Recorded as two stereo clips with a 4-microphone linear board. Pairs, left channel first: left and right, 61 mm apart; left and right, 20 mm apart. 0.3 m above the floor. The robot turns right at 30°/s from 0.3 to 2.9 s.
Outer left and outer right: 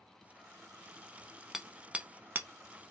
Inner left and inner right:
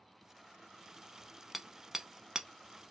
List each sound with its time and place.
1.5 s hammering: 5° right (ahead or behind), 0.7 m; by 2.5 s 30° right (ahead or behind), 0.7 m